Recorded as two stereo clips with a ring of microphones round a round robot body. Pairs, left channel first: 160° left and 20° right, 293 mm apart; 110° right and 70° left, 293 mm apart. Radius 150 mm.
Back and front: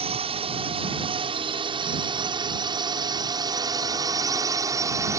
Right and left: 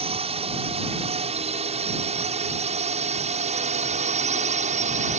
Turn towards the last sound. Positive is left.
turn(degrees=45)